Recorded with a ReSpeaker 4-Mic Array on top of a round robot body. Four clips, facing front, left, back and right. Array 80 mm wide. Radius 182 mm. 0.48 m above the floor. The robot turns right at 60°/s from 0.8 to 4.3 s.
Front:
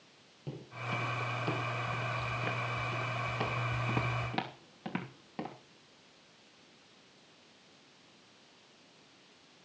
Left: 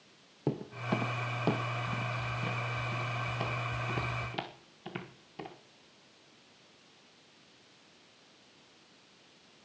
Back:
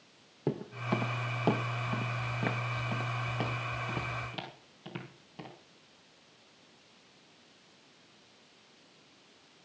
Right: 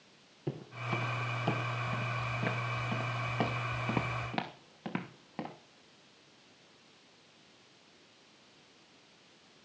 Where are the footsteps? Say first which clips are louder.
Left 5 dB, back 7 dB; 135° left, 1.4 m; by 5.5 s 65° right, 5 m.